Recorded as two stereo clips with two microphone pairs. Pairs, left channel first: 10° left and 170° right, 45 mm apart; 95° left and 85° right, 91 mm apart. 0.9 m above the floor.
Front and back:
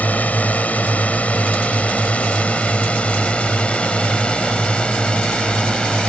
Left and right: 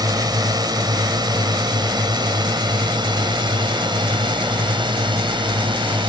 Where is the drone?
40° right; by 6.1 s 60° right.